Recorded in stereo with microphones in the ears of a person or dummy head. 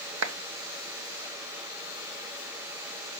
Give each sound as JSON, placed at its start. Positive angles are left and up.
{"t": 0.2, "sound": "a clap", "side_deg": -80, "distance_m": 1.2}